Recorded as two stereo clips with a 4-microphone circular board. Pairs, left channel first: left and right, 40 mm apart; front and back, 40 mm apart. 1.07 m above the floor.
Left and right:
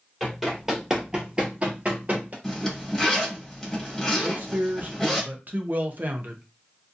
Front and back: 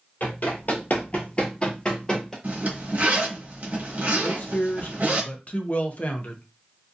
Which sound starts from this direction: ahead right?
A man speaking, at 4.2 s.